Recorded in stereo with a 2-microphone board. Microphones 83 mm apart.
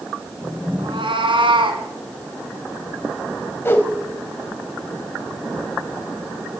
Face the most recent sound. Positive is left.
turn(degrees=25)  # may be behind; listen again after turning